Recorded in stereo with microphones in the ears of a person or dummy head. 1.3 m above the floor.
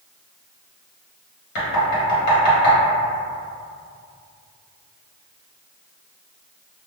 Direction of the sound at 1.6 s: 60° left (ahead or behind).